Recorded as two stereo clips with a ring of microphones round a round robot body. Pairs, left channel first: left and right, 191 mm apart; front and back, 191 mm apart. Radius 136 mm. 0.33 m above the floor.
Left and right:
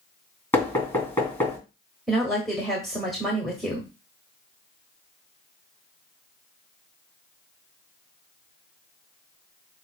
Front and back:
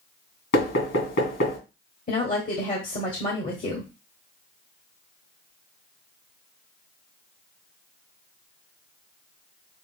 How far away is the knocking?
About 2.5 m.